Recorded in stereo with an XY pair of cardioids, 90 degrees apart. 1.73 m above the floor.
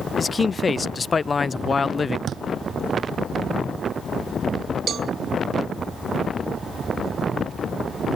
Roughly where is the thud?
Ahead right.